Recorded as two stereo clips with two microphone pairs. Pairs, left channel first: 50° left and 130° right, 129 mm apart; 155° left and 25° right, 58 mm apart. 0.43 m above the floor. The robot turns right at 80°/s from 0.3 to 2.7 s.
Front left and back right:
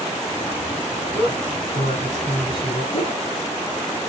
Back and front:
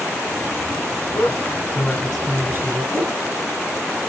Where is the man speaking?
170° left, 3 m; by 2.8 s 65° right, 3 m.